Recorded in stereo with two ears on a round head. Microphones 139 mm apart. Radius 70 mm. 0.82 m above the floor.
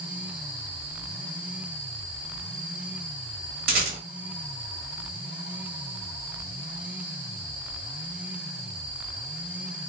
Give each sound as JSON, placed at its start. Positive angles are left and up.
{"t": 3.7, "sound": "a rattle", "side_deg": -60, "distance_m": 2.5}